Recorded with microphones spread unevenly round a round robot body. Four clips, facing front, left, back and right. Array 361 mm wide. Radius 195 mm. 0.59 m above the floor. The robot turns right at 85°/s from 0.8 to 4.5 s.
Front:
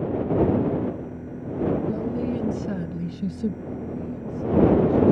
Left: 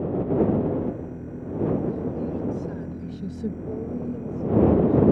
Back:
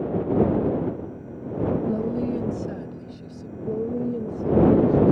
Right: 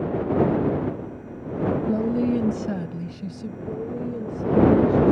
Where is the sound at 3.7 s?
160° left; by 5.1 s 125° right.